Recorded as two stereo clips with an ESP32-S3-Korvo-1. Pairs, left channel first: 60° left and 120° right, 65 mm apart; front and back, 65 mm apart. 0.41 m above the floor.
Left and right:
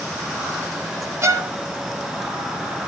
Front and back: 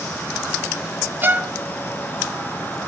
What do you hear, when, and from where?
1.2 s a violin: 135° right, 0.8 m